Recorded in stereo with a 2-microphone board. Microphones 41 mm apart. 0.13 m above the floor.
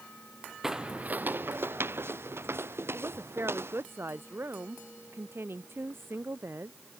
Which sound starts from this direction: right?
A woman speaking, at 2.9 s.